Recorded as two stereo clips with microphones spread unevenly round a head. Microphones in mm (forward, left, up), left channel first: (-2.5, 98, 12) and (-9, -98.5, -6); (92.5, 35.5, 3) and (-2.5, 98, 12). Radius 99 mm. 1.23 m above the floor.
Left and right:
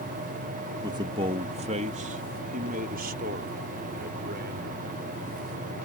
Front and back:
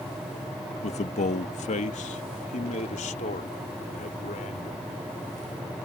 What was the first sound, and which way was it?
A man speaking, 20° right.